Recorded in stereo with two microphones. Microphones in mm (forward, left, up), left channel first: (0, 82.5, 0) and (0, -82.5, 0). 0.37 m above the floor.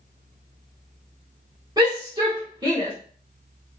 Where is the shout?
25° right (ahead or behind), 0.9 m.